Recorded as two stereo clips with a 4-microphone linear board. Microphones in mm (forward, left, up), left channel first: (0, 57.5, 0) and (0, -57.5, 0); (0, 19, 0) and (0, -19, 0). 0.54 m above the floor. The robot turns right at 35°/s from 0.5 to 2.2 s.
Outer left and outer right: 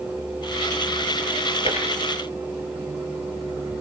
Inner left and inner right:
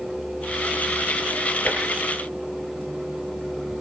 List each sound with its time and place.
1.6 s tapping: 50° left (ahead or behind), 8 m; by 1.8 s 45° left (ahead or behind), 8 m